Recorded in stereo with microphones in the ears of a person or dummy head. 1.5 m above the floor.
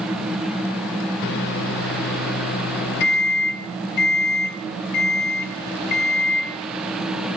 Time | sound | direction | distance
1.2 | a microwave | 50° left (ahead or behind) | 0.7 m